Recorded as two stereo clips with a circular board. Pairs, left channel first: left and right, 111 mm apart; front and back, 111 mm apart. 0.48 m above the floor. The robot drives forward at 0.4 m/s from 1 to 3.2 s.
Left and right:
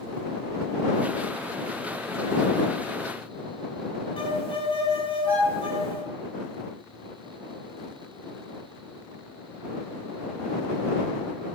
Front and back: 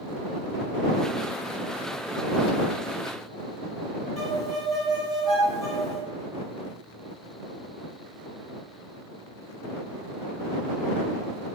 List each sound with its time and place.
4.2 s a violin: 90° left, 0.8 m